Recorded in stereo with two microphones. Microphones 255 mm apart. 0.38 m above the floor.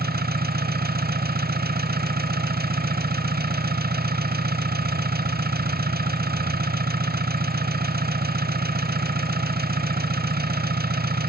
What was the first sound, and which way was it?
An engine running, 35° right (ahead or behind).